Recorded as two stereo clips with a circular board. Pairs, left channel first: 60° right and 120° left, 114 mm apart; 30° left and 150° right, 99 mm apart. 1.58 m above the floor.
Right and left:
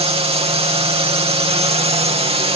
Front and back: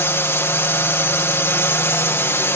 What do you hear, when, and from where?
0.0 s a drone: 95° left